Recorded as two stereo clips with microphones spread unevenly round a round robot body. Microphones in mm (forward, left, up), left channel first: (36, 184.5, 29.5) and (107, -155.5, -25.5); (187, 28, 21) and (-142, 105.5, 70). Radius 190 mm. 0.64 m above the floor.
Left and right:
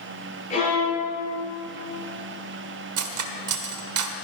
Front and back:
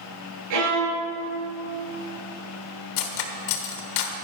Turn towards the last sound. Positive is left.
turn(degrees=-45)